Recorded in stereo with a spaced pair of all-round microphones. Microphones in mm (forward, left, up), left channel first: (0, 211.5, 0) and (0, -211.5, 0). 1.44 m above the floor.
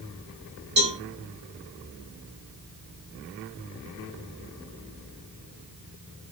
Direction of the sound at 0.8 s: 80° right.